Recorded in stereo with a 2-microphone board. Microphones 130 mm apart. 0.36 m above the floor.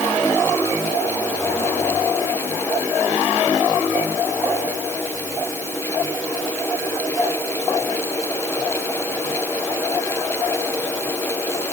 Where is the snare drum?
I don't hear a snare drum.